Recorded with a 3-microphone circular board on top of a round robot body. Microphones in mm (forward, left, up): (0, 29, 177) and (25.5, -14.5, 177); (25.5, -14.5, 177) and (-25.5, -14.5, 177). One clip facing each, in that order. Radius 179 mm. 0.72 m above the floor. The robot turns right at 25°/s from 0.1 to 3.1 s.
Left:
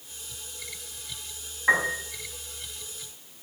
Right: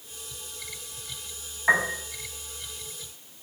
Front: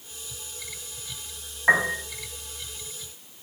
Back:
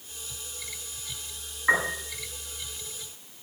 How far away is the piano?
About 7.5 m.